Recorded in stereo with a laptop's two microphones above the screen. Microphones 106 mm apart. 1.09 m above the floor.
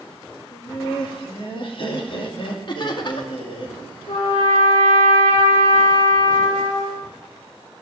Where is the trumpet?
80° left, 8 m.